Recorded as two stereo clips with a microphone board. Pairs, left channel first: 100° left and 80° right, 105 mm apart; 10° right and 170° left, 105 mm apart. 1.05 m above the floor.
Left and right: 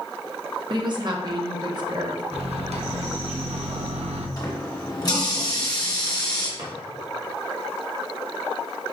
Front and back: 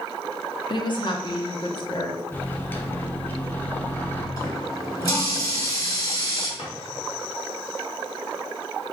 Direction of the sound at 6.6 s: 45° right.